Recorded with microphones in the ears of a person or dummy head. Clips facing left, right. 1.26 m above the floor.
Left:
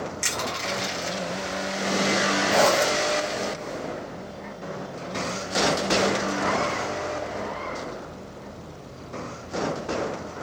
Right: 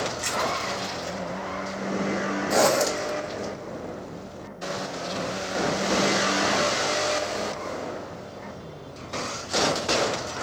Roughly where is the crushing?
Left.